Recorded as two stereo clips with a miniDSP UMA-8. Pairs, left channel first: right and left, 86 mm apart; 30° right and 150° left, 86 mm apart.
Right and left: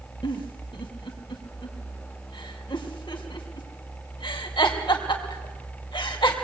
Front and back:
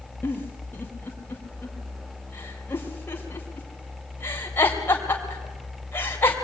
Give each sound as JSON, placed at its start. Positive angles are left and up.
{"t": 0.2, "sound": "a giggle", "azimuth_deg": -90, "distance_m": 3.5}